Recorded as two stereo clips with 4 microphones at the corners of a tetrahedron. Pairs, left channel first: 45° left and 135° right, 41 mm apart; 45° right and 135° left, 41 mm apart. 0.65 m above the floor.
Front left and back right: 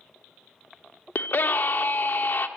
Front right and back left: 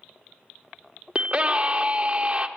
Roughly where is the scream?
Left.